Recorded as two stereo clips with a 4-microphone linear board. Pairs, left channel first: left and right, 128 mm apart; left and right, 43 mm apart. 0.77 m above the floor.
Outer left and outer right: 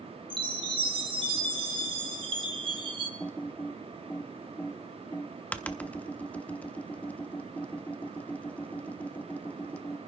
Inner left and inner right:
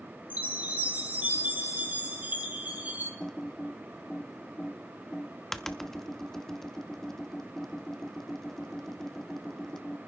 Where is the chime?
40° right (ahead or behind), 2 m.